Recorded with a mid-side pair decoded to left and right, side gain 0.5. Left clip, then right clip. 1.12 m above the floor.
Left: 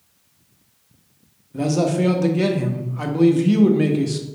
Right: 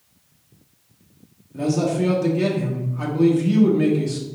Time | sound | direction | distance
1.5 | a man speaking | 35° left | 1.0 m